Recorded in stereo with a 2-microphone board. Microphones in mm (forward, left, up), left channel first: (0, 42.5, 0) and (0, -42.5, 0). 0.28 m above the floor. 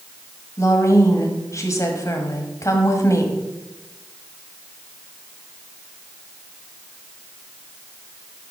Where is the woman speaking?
35° left (ahead or behind), 1.5 m.